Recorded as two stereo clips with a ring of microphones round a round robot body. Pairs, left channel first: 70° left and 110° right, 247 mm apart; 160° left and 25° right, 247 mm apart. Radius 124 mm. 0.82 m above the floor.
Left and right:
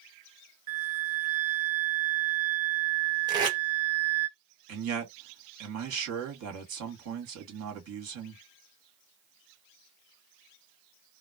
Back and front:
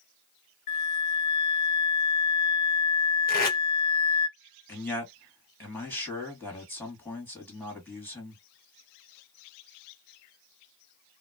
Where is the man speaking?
120° right, 1.7 m.